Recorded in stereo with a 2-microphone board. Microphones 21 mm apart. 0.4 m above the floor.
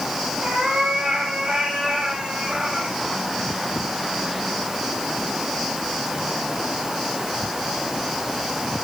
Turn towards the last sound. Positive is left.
turn(degrees=-75)  # may be behind; listen again after turning